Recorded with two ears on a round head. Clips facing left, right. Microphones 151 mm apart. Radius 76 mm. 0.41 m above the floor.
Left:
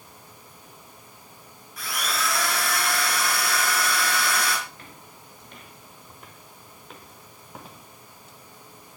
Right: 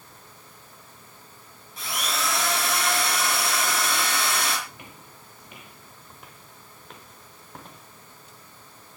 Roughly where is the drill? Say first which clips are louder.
Even; right.